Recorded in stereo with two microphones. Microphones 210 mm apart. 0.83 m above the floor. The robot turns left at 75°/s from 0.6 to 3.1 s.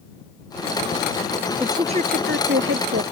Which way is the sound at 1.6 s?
10° right.